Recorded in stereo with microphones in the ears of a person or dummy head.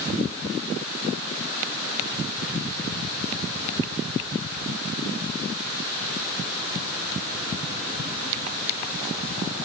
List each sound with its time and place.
Only background noise.